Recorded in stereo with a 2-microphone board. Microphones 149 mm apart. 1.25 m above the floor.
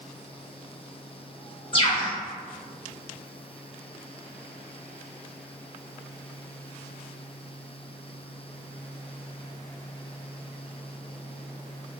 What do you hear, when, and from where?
1.7 s a bird: 35° left (ahead or behind), 0.7 m